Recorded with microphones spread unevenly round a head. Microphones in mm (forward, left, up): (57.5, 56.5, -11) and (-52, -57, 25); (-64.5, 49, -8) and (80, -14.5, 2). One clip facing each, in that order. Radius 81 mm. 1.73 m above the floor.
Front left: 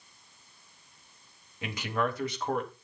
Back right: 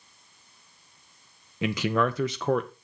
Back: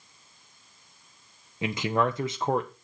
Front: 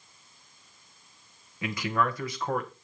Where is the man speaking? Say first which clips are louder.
Back right 6 dB, back 3 dB; 130° right, 1.2 m.